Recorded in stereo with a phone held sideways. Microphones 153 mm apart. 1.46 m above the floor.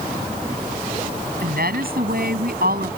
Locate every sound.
1.4 s a woman speaking: 90° right